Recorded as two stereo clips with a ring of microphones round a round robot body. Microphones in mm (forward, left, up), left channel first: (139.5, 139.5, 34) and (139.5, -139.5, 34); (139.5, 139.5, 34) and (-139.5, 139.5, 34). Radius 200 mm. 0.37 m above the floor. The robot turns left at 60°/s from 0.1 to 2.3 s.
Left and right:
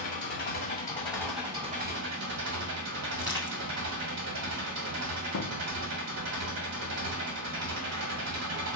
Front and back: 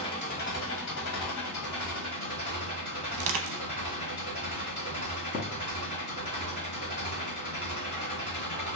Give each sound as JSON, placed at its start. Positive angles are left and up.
{"t": 0.0, "sound": "an engine running", "azimuth_deg": 75, "distance_m": 1.4}
{"t": 3.1, "sound": "crushing", "azimuth_deg": 180, "distance_m": 0.5}
{"t": 5.3, "sound": "a thud", "azimuth_deg": 55, "distance_m": 0.6}